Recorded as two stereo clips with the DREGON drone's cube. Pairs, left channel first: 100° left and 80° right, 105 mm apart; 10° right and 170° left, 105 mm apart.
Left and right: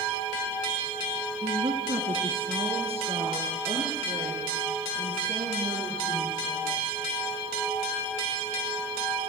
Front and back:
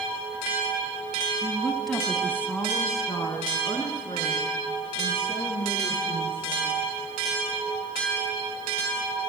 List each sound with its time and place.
1.4 s a woman speaking: 115° right, 2.5 m; by 6.8 s 40° right, 7.5 m